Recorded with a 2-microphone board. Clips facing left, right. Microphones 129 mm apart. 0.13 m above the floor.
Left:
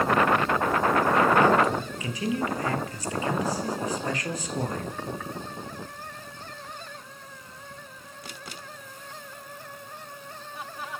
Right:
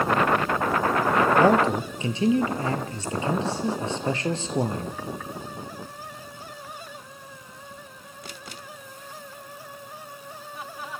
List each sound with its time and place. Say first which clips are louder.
1.4 s a man speaking: right 2 dB; 30° right (ahead or behind), 3 m